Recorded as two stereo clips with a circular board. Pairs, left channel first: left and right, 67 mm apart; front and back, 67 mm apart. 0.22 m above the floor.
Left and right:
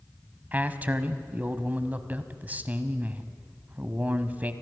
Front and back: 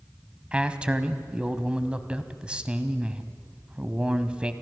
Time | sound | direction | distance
0.5 | a man speaking | 120° right | 1.1 m